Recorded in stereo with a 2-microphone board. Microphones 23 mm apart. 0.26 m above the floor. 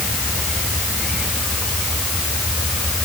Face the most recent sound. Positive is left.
No sound to turn to.